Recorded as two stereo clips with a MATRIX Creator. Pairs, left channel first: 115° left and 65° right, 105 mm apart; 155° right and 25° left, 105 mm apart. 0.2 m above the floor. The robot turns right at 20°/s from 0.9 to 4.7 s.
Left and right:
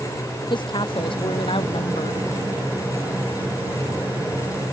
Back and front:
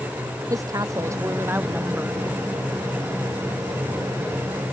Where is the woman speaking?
75° left; by 2.2 s 105° left.